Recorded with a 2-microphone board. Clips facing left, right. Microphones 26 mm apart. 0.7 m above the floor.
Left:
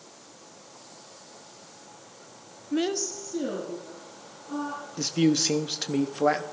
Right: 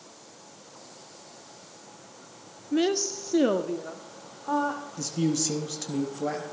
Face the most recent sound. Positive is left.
turn(degrees=40)  # may be behind; listen again after turning